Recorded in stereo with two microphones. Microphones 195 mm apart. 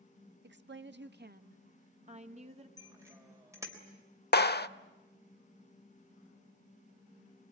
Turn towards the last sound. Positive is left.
turn(degrees=60)  # may be behind; listen again after turning